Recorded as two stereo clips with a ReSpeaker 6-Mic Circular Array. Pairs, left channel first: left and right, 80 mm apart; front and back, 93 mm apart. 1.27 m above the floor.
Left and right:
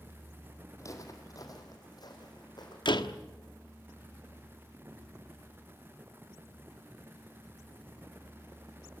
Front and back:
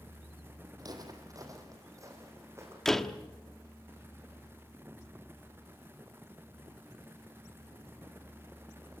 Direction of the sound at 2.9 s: 85° left.